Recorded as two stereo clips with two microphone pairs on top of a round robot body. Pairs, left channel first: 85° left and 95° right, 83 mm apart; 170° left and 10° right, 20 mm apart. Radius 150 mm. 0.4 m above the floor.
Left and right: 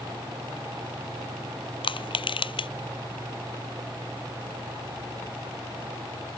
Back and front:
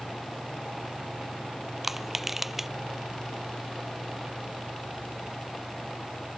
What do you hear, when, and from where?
1.8 s crushing: 65° left